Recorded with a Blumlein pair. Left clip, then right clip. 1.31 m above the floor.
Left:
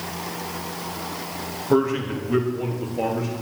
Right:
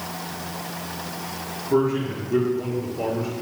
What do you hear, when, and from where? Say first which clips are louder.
1.7 s a man speaking: left 1 dB; 55° left, 2 m; by 3.3 s 45° left, 3 m